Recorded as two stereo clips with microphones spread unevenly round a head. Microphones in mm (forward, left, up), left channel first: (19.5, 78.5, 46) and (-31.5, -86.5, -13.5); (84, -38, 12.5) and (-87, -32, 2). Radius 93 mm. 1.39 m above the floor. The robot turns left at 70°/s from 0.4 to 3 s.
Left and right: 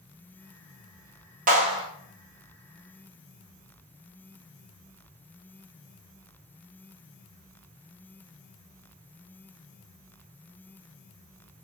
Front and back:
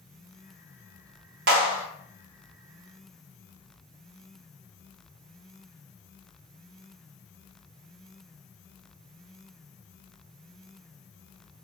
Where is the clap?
160° right, 1.3 m; by 1.9 s 175° left, 1.3 m.